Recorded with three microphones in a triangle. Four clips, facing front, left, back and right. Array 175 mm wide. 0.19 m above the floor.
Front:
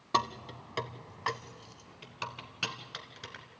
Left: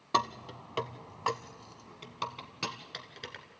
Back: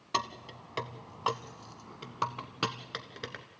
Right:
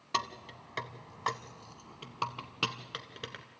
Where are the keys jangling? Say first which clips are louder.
Left 5 dB, front 3 dB; 60° left, 0.9 m; by 3.5 s 155° right, 1.6 m.